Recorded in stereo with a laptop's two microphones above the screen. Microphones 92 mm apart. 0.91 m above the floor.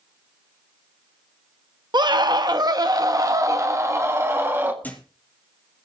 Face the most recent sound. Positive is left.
turn(degrees=20)  # may be behind; listen again after turning